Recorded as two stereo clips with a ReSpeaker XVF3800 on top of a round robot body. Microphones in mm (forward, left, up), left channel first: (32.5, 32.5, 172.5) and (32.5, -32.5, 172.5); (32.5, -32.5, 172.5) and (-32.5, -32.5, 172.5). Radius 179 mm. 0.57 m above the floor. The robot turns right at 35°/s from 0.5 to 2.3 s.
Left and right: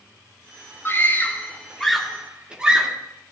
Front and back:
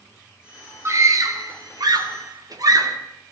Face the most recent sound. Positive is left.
turn(degrees=-170)